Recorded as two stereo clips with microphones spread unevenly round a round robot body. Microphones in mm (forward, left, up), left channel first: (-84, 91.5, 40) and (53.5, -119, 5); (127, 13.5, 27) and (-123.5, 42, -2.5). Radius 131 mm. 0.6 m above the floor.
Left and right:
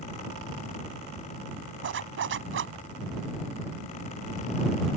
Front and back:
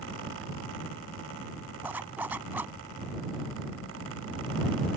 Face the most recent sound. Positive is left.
turn(degrees=-100)